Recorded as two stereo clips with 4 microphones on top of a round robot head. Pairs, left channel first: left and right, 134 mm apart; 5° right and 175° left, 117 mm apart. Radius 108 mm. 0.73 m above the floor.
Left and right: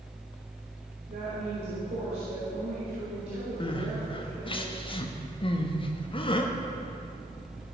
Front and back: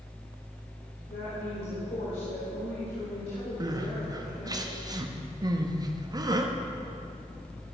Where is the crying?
125° left, 1.2 m.